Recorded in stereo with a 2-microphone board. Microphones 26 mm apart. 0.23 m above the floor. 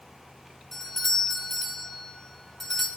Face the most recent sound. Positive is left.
turn(degrees=20)  # may be behind; listen again after turning